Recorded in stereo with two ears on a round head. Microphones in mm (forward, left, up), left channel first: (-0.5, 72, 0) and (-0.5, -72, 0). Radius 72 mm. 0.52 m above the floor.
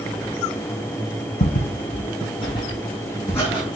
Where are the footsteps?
55° left (ahead or behind), 0.9 m; by 3.6 s 15° left (ahead or behind), 2 m.